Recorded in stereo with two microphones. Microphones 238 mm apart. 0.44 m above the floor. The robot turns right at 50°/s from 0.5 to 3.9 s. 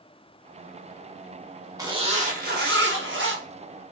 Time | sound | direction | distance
1.8 | a zipper | 160° right | 0.8 m